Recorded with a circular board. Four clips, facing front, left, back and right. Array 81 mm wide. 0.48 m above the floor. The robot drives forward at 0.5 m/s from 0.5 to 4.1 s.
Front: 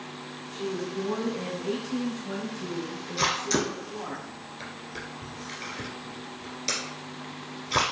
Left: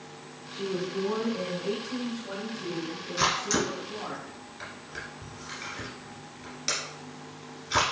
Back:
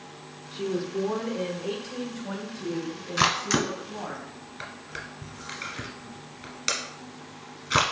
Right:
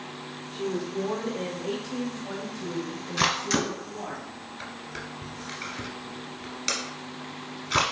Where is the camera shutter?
165° right, 1.3 m; by 7.9 s 170° right, 1.7 m.